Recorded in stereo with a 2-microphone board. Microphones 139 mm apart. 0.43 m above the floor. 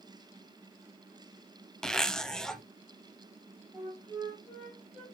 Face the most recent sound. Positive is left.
turn(degrees=0)  # may be behind; listen again after turning